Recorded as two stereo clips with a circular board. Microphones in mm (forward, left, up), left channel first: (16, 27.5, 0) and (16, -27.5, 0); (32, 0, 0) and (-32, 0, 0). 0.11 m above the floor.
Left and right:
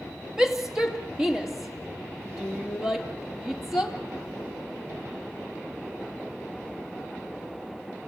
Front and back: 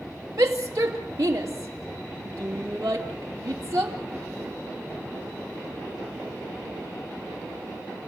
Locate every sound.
0.4 s a shout: 165° right, 2.5 m